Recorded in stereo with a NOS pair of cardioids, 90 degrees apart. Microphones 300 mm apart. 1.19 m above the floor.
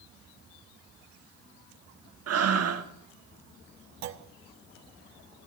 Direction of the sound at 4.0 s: 65° right.